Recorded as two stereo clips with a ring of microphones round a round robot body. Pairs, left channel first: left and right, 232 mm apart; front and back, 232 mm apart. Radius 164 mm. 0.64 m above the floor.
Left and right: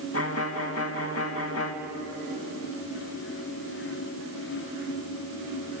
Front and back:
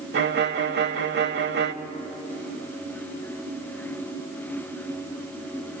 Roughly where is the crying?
No crying in this recording.